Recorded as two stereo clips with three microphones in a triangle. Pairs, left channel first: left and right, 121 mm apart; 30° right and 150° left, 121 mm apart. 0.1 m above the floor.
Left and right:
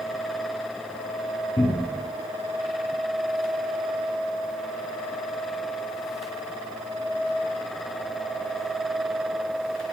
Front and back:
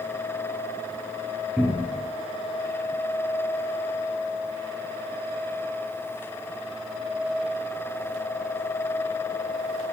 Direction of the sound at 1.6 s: 80° left.